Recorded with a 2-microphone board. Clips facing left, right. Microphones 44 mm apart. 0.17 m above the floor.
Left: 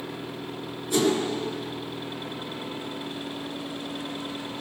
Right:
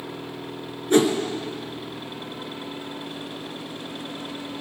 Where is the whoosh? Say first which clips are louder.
Right 5 dB; 45° right (ahead or behind), 2.5 m.